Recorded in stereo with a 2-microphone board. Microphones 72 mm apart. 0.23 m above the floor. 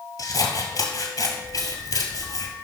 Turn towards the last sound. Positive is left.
turn(degrees=60)  # may be behind; listen again after turning